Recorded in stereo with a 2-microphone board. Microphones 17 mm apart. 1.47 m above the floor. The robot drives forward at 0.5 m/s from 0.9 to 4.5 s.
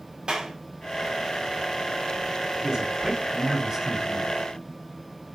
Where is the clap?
70° right (ahead or behind), 4 m.